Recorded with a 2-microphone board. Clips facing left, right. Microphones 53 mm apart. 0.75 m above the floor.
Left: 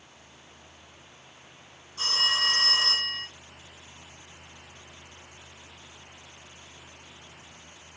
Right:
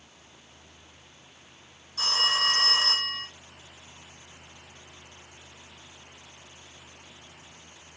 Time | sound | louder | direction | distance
2.0 | a phone ringing | right 1 dB | 75° right (ahead or behind) | 3.5 m